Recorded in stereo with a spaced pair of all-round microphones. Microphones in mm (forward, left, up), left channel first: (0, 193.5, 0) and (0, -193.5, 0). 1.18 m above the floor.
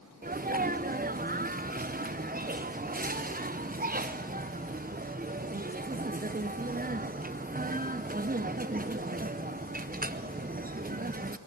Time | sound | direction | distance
0.2 | a sneeze | 25° right (ahead or behind) | 0.5 m